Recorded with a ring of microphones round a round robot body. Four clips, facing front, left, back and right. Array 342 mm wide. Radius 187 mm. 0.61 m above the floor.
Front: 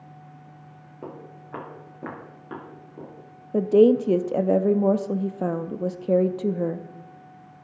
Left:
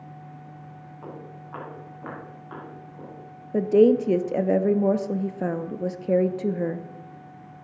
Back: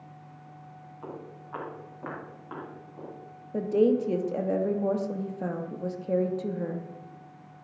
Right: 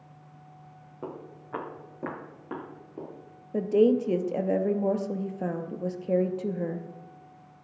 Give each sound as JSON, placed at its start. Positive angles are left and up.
{"t": 1.0, "sound": "footsteps", "azimuth_deg": -40, "distance_m": 6.0}
{"t": 3.5, "sound": "a woman speaking", "azimuth_deg": 30, "distance_m": 0.8}